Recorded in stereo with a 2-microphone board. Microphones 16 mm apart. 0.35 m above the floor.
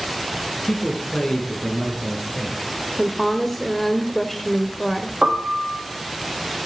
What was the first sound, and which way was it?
A man speaking, 70° left (ahead or behind).